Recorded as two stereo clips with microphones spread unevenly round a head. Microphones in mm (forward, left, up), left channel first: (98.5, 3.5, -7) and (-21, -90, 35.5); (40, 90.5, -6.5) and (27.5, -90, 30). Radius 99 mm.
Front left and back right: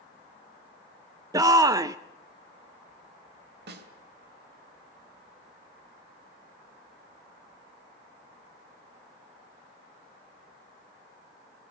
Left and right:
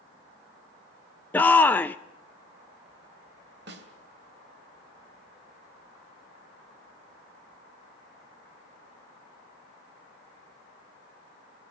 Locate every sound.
1.3 s a shout: 140° left, 0.6 m
3.7 s a snare drum: 135° right, 2.5 m